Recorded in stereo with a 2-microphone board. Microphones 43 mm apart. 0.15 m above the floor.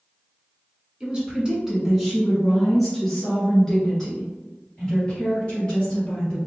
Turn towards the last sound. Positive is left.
turn(degrees=25)  # may be behind; listen again after turning